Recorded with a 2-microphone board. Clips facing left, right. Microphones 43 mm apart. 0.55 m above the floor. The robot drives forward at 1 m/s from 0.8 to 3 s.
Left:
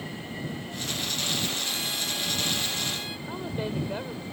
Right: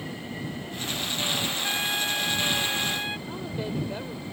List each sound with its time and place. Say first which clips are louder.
1.6 s a trumpet: right 4 dB; 50° right (ahead or behind); by 3.2 s 40° right (ahead or behind)
3.3 s a woman speaking: even; 15° left (ahead or behind)